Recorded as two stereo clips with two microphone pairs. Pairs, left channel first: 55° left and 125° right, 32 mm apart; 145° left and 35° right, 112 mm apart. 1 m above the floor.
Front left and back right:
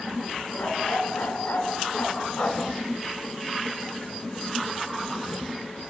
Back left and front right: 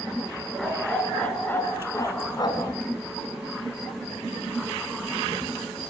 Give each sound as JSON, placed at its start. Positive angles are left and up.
{"t": 0.6, "sound": "a dog barking", "azimuth_deg": 55, "distance_m": 3.0}